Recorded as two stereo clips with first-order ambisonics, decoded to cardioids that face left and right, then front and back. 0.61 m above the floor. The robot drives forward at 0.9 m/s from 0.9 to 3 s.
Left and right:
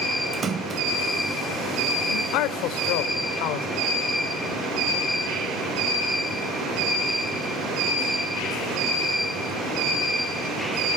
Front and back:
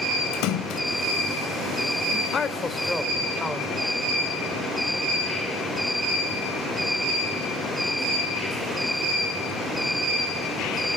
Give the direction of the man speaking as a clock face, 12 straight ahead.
10 o'clock.